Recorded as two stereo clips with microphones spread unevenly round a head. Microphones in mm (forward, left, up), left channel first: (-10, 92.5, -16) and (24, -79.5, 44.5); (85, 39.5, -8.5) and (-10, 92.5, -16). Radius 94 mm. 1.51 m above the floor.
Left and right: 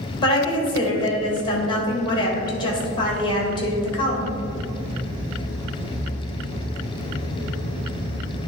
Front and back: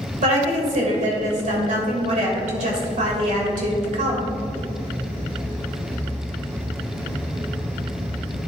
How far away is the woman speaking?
About 1.7 m.